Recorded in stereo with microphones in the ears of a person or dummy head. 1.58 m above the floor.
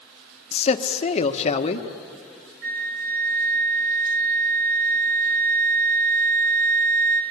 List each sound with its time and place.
0.5 s a man speaking: 40° left (ahead or behind), 1.4 m
2.6 s a flute: 45° right (ahead or behind), 1.2 m